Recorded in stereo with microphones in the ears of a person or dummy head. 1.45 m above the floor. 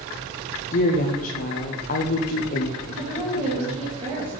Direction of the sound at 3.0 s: 40° right (ahead or behind).